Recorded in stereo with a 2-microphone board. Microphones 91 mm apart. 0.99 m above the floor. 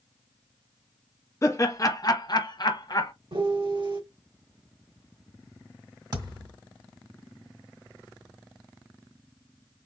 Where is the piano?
80° right, 2.5 m.